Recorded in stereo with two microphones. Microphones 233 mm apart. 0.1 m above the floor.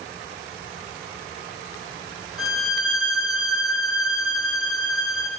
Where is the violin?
70° left (ahead or behind), 2.0 m.